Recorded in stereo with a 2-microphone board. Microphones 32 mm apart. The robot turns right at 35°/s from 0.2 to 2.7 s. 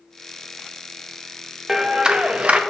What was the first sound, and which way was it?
A clap, 165° right.